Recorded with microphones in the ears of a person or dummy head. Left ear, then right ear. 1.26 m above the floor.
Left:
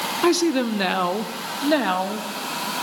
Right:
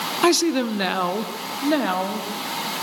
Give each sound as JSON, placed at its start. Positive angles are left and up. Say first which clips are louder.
{"t": 0.2, "sound": "a woman speaking", "louder": "right 1 dB", "side_deg": -25, "distance_m": 0.6}